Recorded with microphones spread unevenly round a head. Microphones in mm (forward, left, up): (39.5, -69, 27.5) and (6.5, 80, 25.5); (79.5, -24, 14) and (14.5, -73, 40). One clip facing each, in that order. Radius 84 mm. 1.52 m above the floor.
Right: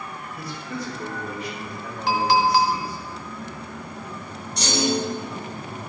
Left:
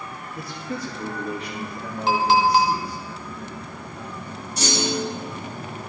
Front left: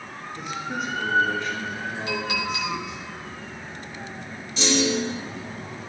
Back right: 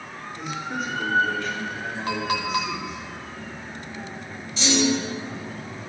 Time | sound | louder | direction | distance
0.3 | a man speaking | left 2 dB, even | 90° left | 2.5 m
2.1 | a clink | left 1 dB, back right 4 dB | 170° left | 0.8 m
4.6 | a clunk | right 2 dB, back right 1 dB | 15° left | 4 m